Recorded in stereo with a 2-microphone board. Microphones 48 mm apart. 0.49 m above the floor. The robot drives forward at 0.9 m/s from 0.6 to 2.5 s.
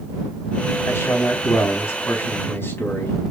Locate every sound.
0.9 s a man speaking: 70° left (ahead or behind), 4 m; by 3.2 s 60° left (ahead or behind), 4.5 m